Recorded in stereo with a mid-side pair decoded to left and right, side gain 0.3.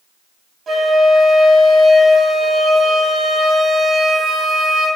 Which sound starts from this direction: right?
A flute, at 0.7 s.